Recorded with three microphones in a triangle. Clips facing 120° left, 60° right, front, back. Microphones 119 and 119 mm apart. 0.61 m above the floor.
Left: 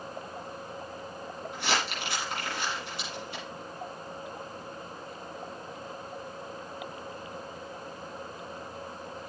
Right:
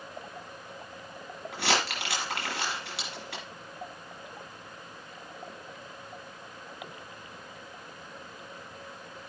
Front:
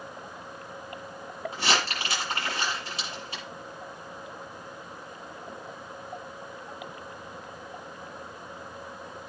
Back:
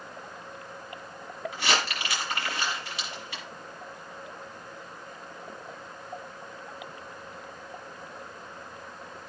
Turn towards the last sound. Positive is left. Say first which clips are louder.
# right 2 dB, front 1 dB
turn(degrees=-55)